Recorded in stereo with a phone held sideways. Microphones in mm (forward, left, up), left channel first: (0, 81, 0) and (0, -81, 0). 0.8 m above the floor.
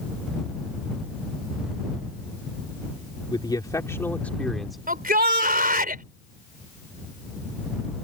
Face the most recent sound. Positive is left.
turn(degrees=-60)  # may be behind; listen again after turning